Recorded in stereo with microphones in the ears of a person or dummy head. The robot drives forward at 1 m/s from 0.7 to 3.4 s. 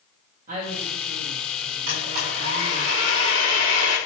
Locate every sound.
0.5 s a woman speaking: 50° right (ahead or behind), 1.9 m; by 2.9 s 60° right (ahead or behind), 1.7 m
1.9 s a blender: 55° right (ahead or behind), 4.5 m; by 4.0 s 40° right (ahead or behind), 5.5 m